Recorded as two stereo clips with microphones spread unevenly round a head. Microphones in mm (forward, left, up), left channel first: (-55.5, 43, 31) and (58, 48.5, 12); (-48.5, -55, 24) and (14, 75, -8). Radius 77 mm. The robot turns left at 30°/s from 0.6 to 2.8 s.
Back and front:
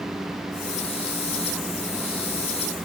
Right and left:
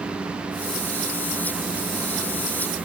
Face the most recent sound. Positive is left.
No sound to turn to.